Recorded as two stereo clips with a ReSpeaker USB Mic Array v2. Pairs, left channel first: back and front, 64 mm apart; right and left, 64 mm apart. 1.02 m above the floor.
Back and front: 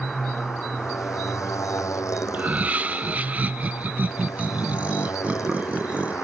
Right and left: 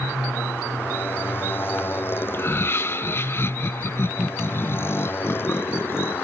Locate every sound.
0.0 s a motorcycle: 145° right
2.3 s laughter: 55° right